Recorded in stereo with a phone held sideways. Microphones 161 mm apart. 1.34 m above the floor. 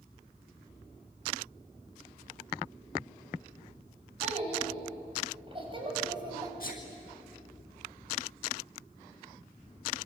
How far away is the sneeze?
About 1.9 m.